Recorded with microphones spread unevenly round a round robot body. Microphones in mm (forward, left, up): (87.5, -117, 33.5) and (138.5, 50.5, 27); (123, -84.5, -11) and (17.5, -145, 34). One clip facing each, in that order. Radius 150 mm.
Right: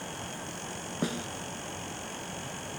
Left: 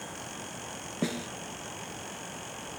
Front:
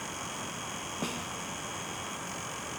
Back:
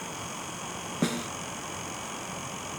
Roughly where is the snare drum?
Behind left.